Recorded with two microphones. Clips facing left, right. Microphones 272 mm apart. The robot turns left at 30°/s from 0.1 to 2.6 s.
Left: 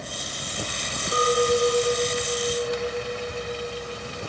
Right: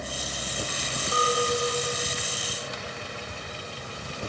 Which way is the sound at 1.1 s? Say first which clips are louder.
Left 6 dB; 150° left.